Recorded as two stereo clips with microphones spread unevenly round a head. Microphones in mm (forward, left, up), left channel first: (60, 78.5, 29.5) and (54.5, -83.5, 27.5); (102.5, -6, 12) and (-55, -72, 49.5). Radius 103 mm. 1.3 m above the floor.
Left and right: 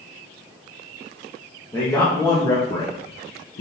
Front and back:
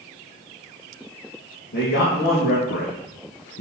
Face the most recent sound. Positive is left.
turn(degrees=45)